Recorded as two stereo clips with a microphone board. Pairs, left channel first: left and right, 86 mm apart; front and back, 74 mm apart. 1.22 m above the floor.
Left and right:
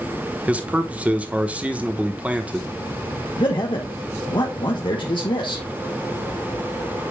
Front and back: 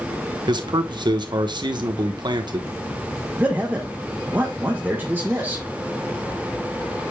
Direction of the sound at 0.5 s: 165° right.